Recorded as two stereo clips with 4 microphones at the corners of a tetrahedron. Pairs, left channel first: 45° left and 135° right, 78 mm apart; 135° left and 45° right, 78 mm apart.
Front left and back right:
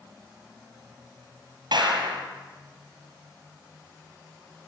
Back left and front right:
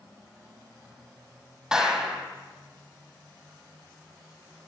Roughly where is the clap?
Behind right.